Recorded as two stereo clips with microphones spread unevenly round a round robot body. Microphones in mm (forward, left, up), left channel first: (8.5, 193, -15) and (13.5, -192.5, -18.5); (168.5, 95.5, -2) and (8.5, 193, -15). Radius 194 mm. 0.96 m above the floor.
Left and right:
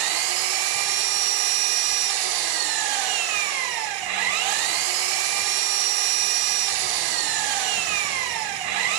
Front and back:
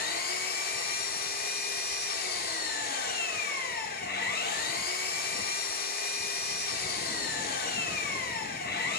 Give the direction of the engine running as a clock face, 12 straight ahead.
3 o'clock.